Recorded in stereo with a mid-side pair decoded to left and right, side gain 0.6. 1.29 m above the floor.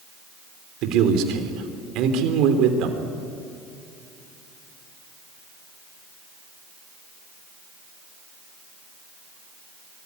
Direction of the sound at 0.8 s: 70° right.